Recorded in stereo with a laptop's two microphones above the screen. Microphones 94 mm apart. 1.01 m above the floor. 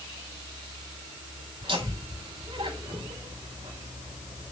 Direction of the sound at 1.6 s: 75° right (ahead or behind).